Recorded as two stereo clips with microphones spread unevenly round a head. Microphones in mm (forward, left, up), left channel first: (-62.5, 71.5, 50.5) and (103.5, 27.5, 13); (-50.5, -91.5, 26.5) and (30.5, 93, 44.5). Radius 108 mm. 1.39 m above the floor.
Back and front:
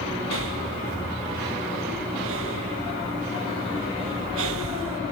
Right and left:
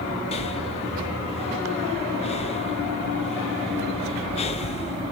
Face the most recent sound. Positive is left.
turn(degrees=-50)